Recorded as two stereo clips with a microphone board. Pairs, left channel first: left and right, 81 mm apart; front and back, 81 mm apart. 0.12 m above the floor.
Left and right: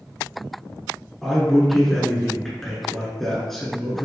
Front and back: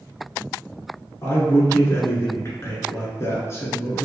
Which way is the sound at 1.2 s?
10° left.